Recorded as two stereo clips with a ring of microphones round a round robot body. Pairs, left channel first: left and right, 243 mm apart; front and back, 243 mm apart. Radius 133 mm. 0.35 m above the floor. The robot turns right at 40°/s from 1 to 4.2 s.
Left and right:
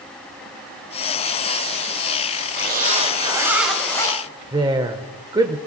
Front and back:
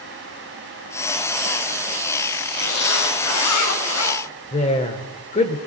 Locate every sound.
2.6 s a zipper: 45° right, 6 m; by 4.2 s 20° left, 6 m
4.5 s a woman speaking: 35° right, 1.0 m